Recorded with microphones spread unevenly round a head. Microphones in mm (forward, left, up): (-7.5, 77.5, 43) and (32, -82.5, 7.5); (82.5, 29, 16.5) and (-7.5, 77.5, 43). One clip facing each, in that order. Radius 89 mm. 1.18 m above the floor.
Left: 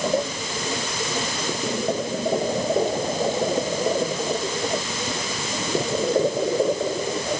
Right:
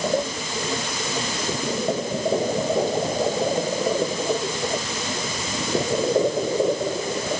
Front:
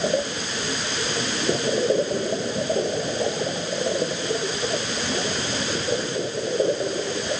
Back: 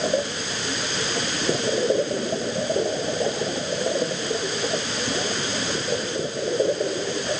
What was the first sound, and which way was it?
Only background noise.